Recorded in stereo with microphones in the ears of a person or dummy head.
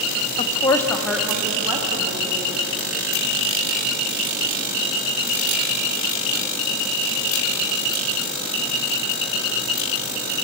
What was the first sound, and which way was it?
A woman speaking, 35° left (ahead or behind).